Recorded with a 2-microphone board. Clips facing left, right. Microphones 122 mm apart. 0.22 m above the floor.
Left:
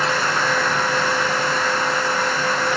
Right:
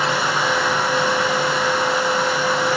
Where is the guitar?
No guitar in this recording.